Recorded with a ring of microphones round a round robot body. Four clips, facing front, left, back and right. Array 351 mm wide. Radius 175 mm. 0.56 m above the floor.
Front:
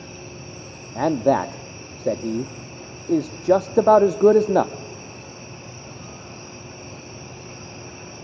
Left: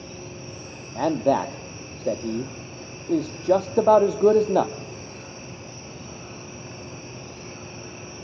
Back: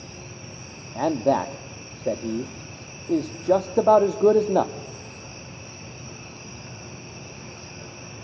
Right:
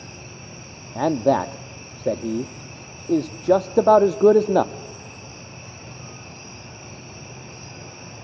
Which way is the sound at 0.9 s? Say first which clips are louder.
Right 2 dB, front 3 dB; 40° right.